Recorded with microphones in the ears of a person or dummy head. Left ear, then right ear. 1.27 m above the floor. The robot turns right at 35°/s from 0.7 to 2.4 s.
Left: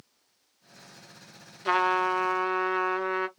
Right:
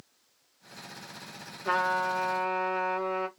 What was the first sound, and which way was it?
A trumpet, 30° left (ahead or behind).